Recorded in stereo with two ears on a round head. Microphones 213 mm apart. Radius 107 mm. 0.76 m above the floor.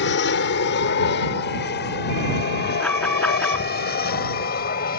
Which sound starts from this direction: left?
An aircraft, at 0.0 s.